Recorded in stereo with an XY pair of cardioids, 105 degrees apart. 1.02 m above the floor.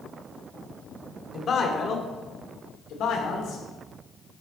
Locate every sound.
1.3 s a man speaking: 45° left, 2.5 m; by 3.6 s 80° left, 3 m